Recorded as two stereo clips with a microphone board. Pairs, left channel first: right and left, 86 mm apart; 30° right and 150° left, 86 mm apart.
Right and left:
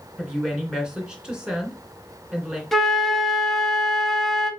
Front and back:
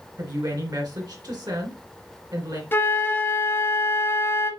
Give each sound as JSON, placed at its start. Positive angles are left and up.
{"t": 0.2, "sound": "a woman speaking", "azimuth_deg": 170, "distance_m": 2.5}
{"t": 2.7, "sound": "a flute", "azimuth_deg": -5, "distance_m": 1.0}